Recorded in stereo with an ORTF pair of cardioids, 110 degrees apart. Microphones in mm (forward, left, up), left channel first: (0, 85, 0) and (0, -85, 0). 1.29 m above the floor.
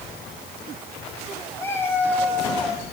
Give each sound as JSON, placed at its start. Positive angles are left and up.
{"t": 1.6, "sound": "a cat meowing", "azimuth_deg": 15, "distance_m": 6.5}